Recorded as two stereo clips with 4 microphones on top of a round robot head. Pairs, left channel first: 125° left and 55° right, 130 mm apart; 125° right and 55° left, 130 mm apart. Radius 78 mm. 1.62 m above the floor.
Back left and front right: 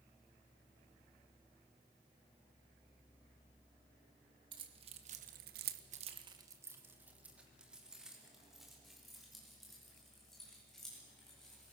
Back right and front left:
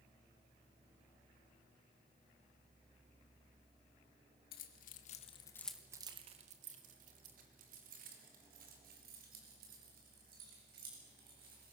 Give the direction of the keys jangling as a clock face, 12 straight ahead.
4 o'clock.